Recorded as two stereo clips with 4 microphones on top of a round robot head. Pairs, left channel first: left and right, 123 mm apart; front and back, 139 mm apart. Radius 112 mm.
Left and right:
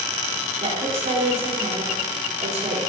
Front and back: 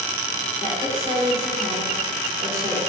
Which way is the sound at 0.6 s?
115° right.